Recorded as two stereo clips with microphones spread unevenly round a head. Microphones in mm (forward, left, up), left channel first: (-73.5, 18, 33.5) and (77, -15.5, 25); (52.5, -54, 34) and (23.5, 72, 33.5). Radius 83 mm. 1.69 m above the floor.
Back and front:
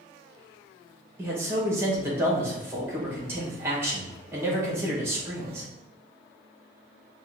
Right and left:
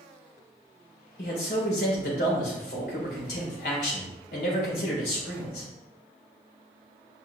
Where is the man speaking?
90° right, 1.5 m.